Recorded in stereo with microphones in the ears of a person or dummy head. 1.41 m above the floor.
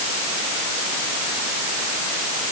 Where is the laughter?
No laughter in this recording.